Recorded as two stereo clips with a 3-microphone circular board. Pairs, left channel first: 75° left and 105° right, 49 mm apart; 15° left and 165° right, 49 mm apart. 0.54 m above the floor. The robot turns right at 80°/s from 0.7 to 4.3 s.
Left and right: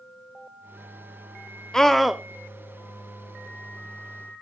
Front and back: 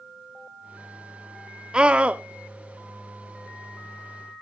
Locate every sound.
1.7 s a scream: 145° left, 0.6 m; by 2.2 s 175° right, 0.6 m